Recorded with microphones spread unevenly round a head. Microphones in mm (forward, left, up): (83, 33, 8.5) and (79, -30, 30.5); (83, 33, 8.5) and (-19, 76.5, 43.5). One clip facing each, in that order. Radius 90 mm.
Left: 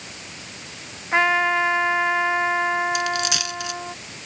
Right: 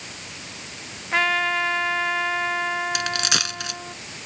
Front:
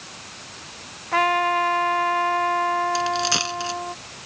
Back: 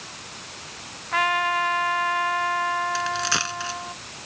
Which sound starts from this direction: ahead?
A trumpet, at 1.1 s.